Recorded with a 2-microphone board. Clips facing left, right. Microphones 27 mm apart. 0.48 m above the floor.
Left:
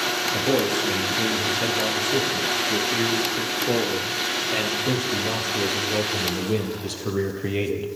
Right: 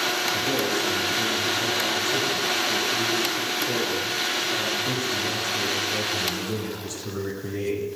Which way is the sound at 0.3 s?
85° left.